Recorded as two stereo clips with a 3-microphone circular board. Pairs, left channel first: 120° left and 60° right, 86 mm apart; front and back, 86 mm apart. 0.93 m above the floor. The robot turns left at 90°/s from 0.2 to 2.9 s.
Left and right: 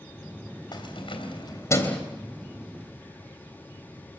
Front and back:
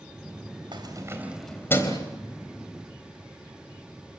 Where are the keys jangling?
155° left, 3.5 m; by 2.0 s 40° left, 3.5 m.